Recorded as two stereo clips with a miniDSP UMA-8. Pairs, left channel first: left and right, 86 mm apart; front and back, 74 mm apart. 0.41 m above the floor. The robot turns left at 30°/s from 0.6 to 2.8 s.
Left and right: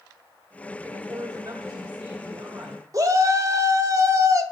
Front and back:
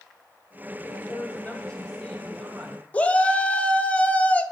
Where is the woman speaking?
45° right, 2.5 m; by 2.8 s 105° right, 2.5 m.